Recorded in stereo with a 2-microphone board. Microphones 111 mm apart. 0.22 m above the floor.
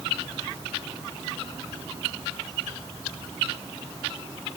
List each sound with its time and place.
Only background noise.